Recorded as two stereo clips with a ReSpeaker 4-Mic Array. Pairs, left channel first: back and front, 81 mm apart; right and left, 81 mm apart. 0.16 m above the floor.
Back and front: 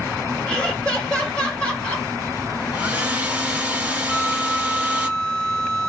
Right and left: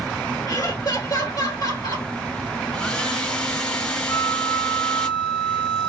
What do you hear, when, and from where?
0.5 s laughter: 105° right, 2.5 m
2.7 s a hair dryer: 35° right, 1.6 m
4.1 s a flute: 115° right, 1.7 m